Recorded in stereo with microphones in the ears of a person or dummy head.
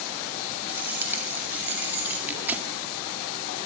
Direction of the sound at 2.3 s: 10° right (ahead or behind).